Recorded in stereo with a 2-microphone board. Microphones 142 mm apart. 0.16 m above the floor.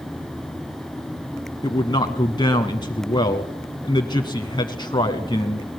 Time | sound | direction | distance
1.6 | a man speaking | 30° left (ahead or behind) | 1.1 m